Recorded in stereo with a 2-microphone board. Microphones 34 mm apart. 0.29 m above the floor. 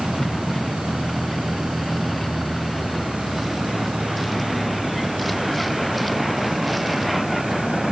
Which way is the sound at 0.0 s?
5° left (ahead or behind).